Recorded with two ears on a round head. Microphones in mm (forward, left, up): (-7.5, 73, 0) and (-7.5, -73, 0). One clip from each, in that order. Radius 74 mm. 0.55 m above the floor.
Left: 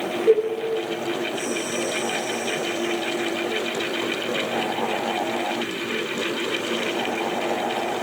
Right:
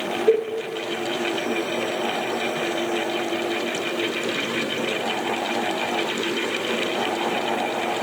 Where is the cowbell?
75° left (ahead or behind), 3 m.